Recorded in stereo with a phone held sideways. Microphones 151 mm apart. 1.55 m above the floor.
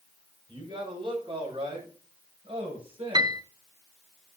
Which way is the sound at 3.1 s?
30° right (ahead or behind).